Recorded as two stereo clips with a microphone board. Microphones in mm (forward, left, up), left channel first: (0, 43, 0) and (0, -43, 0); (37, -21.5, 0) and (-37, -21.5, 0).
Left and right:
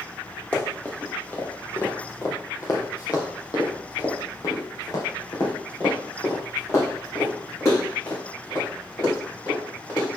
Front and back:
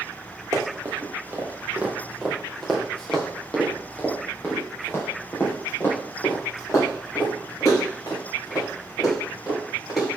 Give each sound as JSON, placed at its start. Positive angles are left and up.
{"t": 0.5, "sound": "running footsteps", "azimuth_deg": 155, "distance_m": 2.0}